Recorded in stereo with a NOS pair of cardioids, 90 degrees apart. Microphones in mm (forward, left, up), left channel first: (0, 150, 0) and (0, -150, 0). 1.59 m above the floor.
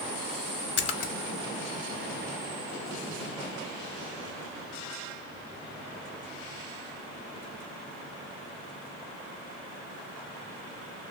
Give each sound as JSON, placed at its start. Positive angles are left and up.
{"t": 0.8, "sound": "a splash", "azimuth_deg": 55, "distance_m": 0.6}